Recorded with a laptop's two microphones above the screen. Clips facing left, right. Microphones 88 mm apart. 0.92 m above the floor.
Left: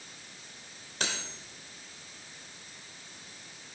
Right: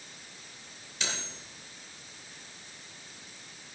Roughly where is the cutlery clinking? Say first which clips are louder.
Left 2 dB; left.